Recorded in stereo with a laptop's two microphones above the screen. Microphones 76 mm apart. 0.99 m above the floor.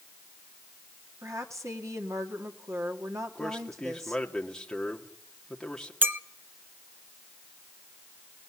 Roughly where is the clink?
Right.